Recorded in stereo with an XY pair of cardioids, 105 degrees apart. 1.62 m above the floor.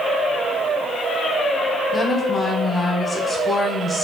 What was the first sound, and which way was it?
A woman speaking, 30° left.